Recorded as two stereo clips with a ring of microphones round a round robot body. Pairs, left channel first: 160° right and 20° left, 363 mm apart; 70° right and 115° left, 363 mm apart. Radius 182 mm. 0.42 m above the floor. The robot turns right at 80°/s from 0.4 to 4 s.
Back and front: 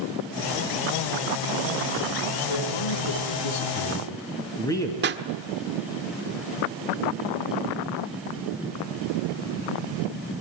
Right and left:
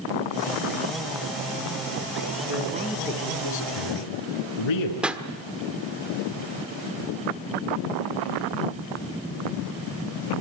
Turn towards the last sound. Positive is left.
turn(degrees=30)